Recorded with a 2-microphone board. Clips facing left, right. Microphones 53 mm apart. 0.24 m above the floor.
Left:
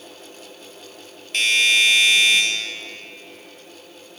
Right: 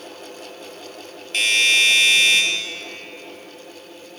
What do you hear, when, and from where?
1.3 s a doorbell: centre (ahead or behind), 1.8 m